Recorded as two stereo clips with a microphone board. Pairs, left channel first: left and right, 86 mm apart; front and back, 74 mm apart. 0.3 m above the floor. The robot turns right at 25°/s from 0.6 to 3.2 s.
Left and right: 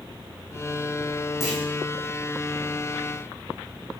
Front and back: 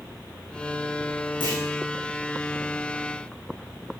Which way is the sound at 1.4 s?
5° right.